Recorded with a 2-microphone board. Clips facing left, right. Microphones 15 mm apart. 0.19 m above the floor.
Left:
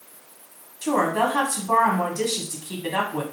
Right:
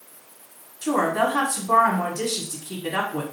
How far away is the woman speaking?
About 1.6 m.